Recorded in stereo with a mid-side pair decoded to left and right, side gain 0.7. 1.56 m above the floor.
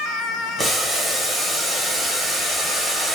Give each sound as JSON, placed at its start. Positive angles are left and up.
{"t": 0.6, "sound": "boiling", "azimuth_deg": -20, "distance_m": 1.3}